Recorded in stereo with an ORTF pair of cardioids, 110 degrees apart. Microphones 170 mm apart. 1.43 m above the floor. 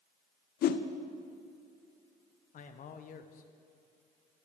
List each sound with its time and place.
0.6 s a whoosh: 65° left, 0.8 m
2.5 s a man speaking: 55° left, 1.2 m